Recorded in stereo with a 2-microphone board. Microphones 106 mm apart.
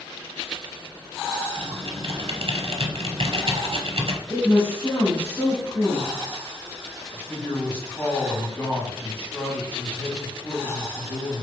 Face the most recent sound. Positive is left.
turn(degrees=20)  # may be behind; listen again after turning